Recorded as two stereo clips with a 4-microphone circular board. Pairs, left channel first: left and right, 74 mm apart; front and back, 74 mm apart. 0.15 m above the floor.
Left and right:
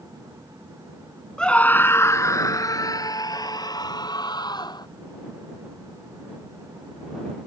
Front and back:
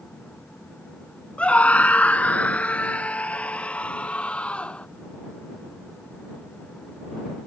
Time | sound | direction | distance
1.4 | a scream | 30° left | ?